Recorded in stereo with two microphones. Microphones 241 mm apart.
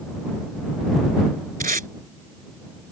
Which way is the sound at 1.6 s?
35° right (ahead or behind).